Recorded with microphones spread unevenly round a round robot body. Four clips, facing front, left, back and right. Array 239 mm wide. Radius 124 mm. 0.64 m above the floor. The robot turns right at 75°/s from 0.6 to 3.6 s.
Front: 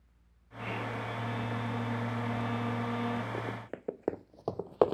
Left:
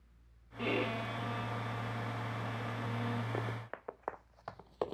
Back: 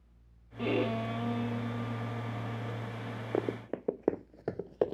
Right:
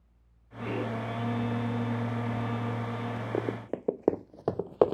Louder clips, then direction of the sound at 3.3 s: Right 9 dB, back 5 dB; 140° right.